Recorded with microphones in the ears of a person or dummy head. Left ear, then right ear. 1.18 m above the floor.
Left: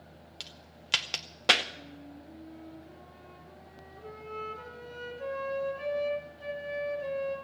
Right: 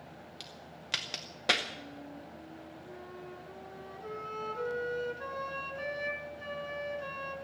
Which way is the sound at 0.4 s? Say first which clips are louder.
Left 5 dB; 25° left (ahead or behind).